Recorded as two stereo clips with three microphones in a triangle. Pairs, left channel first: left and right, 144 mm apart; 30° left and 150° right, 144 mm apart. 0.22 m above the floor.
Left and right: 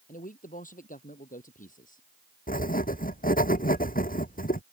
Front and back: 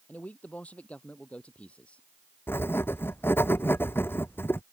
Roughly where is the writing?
Left.